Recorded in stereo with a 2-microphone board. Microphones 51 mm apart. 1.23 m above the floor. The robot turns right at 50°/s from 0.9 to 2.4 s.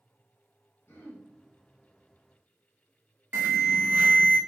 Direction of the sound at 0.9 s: 60° left (ahead or behind).